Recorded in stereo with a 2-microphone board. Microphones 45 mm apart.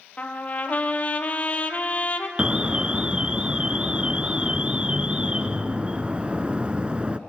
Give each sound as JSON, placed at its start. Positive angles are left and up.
{"t": 0.2, "sound": "a trumpet", "side_deg": 35, "distance_m": 1.6}
{"t": 2.4, "sound": "an alarm", "side_deg": -25, "distance_m": 0.8}